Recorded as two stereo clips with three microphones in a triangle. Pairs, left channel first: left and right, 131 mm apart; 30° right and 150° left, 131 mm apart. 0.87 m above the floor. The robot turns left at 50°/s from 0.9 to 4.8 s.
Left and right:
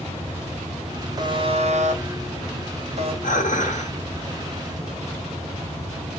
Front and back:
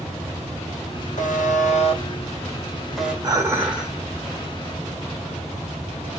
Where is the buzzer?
30° right, 0.6 m; by 3.1 s 130° right, 0.6 m.